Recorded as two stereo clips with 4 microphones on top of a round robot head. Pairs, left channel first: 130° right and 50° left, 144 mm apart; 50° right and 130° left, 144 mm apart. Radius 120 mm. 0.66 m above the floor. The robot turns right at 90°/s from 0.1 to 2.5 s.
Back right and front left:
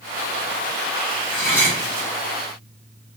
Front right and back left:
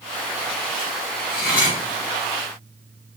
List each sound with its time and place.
1.3 s cutlery clinking: 55° right, 1.7 m; by 1.8 s 10° right, 1.7 m